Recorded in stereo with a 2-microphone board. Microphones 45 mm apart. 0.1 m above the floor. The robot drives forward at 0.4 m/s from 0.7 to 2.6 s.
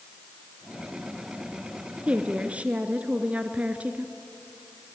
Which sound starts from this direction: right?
A woman speaking, at 2.1 s.